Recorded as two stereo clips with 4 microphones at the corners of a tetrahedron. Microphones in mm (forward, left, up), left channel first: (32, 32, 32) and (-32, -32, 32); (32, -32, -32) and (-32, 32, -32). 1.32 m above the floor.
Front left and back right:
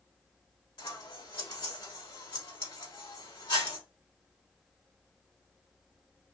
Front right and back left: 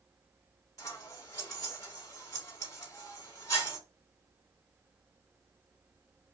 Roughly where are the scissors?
Ahead.